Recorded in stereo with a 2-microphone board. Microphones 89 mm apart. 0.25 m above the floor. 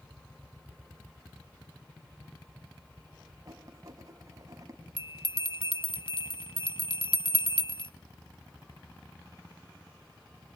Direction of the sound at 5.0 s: 75° left (ahead or behind).